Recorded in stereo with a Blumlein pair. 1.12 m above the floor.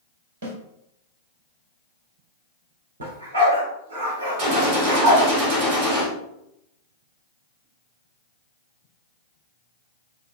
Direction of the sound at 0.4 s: 60° right.